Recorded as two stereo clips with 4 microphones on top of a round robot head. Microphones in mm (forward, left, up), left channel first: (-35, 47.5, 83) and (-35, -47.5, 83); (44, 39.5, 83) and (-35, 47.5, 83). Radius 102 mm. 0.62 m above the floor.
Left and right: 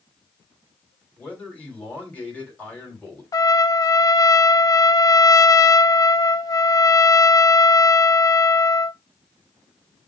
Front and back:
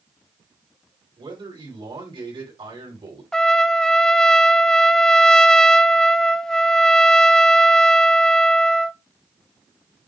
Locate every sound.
1.2 s a man speaking: 165° left, 4.5 m
3.3 s a trumpet: 75° left, 0.7 m